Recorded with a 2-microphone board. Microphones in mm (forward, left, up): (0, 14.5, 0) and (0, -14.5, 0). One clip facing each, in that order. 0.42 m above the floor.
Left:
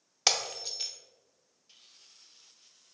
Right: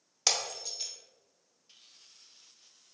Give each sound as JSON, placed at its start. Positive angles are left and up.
{"t": 0.3, "sound": "breaking glass", "side_deg": 20, "distance_m": 0.6}